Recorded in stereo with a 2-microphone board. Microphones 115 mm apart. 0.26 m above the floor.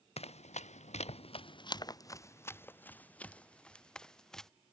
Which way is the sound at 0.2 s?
65° left (ahead or behind).